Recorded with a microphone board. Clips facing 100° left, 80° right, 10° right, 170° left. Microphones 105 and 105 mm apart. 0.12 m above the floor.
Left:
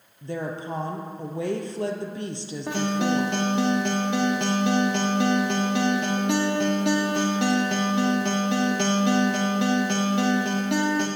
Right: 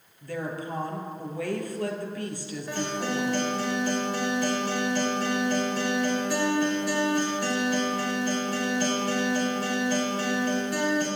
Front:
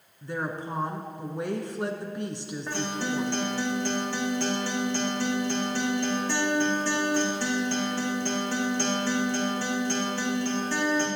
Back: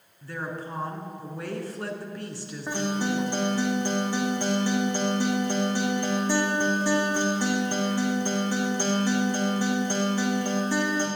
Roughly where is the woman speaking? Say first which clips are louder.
Left 2 dB, front 2 dB; ahead left.